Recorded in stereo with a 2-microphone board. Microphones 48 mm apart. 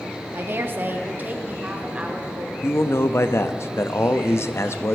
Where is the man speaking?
55° left (ahead or behind), 0.7 m.